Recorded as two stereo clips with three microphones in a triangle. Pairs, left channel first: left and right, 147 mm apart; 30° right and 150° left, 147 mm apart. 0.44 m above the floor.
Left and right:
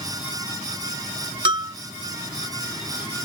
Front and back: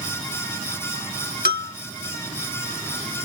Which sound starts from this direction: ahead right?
A bell, at 1.4 s.